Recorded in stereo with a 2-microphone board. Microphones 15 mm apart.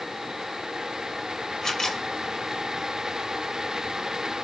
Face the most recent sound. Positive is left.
turn(degrees=45)  # may be behind; listen again after turning